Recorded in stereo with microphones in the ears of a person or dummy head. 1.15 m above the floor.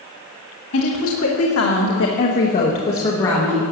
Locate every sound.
0.7 s a woman speaking: 70° left (ahead or behind), 1.8 m; by 3.6 s 15° left (ahead or behind), 1.9 m